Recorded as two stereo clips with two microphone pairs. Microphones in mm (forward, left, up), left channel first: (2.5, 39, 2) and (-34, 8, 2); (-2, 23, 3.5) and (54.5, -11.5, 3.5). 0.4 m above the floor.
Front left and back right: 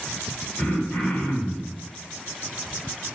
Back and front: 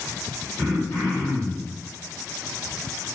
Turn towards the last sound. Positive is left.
turn(degrees=100)